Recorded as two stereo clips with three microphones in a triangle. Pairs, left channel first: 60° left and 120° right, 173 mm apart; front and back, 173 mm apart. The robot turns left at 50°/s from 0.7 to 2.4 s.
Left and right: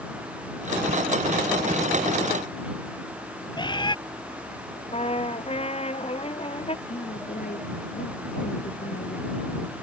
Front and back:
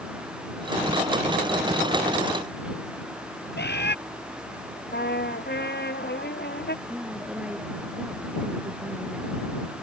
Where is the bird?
5° right.